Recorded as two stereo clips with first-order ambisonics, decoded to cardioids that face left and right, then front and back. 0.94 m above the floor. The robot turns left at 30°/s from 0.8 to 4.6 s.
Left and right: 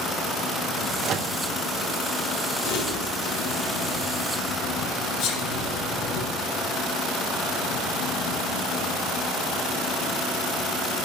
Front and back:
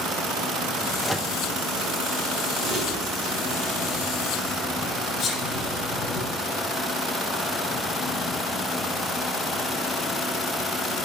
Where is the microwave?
95° right, 0.5 m; by 1.4 s 105° right, 0.5 m.